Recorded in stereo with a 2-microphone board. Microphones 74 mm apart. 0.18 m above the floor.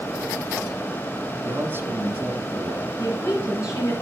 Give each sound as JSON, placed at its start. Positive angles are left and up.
{"t": 1.4, "sound": "a man speaking", "side_deg": -30, "distance_m": 1.2}
{"t": 3.0, "sound": "a woman speaking", "side_deg": 45, "distance_m": 3.0}